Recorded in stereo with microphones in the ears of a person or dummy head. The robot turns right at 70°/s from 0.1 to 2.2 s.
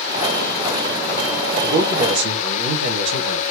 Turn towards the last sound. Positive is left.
turn(degrees=-95)